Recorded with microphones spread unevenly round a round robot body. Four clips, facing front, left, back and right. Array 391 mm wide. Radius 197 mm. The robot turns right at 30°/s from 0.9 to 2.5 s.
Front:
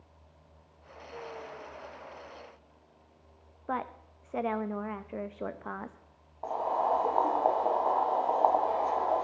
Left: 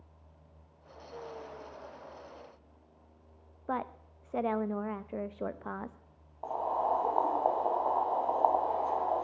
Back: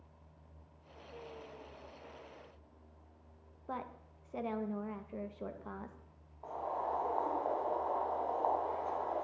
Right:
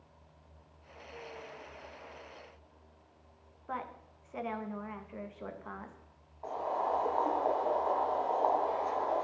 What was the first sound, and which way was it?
A woman speaking, 65° left.